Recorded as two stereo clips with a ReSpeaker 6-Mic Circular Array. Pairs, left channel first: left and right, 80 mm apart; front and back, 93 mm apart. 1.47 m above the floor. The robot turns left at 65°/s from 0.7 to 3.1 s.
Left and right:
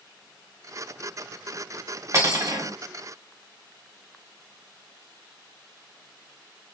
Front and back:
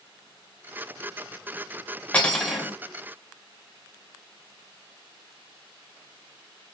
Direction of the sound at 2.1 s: 70° right.